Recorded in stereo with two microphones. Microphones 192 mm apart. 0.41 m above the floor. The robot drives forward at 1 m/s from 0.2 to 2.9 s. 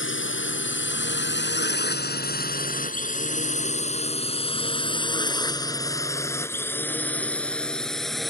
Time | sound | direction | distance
0.0 | a drone | 75° left (ahead or behind) | ?